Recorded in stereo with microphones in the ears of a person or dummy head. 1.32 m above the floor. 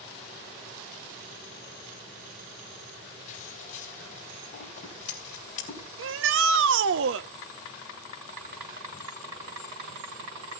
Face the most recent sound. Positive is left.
turn(degrees=-75)  # may be behind; listen again after turning